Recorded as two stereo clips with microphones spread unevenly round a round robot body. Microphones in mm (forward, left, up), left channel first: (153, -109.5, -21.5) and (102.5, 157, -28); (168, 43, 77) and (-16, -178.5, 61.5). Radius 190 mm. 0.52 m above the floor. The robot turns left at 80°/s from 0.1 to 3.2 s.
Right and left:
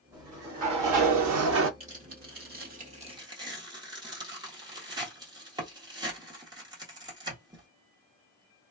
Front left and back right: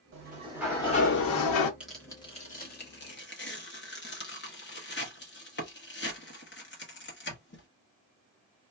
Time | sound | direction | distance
0.1 | a sliding door | 175° right | 0.7 m
1.8 | tearing paper | 155° left | 1.2 m